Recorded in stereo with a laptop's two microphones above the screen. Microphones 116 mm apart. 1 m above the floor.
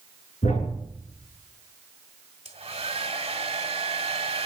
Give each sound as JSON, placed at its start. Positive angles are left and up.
{"t": 0.4, "sound": "a thud", "side_deg": 75, "distance_m": 6.5}
{"t": 2.5, "sound": "a hair dryer", "side_deg": -55, "distance_m": 1.6}